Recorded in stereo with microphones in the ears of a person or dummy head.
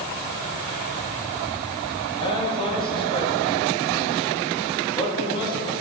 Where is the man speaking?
30° left (ahead or behind), 2 m.